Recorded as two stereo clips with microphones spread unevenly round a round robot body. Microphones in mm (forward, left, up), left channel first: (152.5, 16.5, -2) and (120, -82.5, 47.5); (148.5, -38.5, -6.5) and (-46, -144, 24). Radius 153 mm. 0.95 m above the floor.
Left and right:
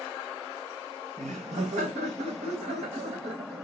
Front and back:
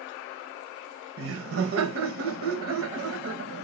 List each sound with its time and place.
1.2 s laughter: 155° right, 0.8 m